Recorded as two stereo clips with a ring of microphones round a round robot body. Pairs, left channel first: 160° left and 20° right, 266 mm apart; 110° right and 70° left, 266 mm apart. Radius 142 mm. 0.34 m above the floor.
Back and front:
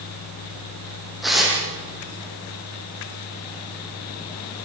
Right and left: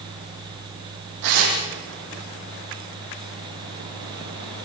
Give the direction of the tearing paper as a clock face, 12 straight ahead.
10 o'clock.